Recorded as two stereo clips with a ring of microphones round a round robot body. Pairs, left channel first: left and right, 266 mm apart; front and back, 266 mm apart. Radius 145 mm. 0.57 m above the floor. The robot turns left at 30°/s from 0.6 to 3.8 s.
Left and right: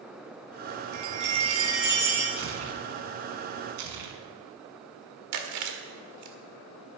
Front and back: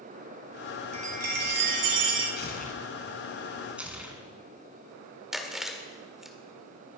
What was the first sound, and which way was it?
A chime, 115° right.